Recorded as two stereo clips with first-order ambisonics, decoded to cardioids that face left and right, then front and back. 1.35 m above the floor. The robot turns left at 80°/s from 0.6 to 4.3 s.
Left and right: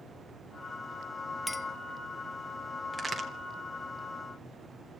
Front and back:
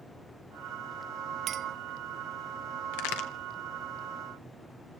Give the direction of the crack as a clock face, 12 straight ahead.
12 o'clock.